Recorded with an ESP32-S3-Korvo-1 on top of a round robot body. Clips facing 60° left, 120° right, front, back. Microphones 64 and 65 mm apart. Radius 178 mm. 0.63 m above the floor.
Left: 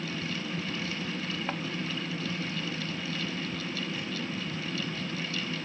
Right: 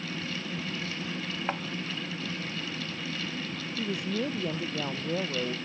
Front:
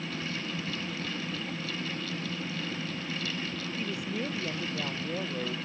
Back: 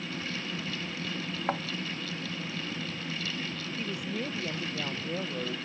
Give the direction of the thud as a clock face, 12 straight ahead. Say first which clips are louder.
Right 4 dB, back 7 dB; 7 o'clock.